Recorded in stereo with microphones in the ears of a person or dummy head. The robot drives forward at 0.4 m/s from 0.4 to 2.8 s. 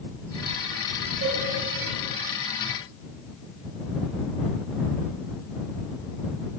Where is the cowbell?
35° right (ahead or behind), 3 m.